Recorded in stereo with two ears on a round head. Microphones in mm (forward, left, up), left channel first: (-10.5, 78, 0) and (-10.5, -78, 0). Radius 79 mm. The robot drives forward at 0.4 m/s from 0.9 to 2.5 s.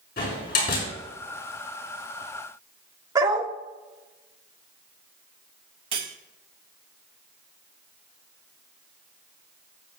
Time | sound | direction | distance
0.2 | a door slam | 50° left (ahead or behind) | 6 m
3.1 | a dog barking | 20° right (ahead or behind) | 1.5 m
5.9 | cutlery clinking | 30° right (ahead or behind) | 1.5 m